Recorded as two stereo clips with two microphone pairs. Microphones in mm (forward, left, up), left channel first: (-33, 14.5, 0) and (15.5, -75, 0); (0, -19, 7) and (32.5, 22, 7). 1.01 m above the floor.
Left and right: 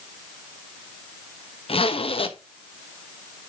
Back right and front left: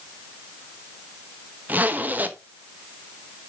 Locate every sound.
1.7 s a zipper: 105° left, 0.9 m